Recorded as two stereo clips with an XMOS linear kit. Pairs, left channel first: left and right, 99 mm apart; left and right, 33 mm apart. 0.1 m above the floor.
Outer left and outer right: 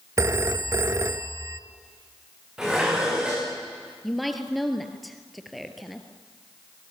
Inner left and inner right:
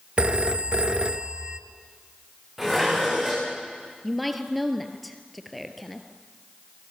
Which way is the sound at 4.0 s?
Centre (ahead or behind).